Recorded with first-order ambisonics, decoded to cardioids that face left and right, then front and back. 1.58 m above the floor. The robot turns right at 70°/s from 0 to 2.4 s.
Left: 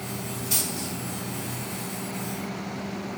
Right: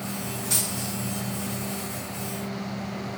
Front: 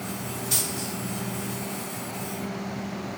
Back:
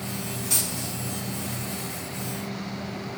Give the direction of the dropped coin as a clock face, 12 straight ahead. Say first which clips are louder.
Even, even; 5 o'clock.